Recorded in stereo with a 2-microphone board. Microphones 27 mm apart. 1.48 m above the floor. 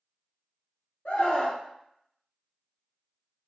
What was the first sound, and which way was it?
A scream, 70° left (ahead or behind).